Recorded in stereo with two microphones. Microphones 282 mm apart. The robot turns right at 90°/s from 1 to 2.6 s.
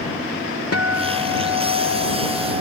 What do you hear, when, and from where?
0.7 s a guitar: 60° left; by 2.6 s 155° right